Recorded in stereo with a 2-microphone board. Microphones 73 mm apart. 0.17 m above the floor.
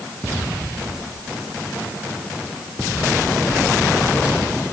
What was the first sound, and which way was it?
Only background noise.